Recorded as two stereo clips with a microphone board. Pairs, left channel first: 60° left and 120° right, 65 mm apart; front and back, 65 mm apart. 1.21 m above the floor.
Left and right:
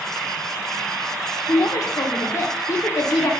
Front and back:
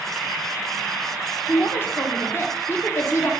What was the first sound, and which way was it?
A woman speaking, 50° left.